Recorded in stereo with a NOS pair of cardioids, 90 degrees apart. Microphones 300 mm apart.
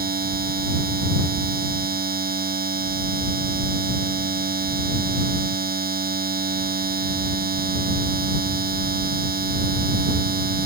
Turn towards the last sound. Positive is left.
turn(degrees=-30)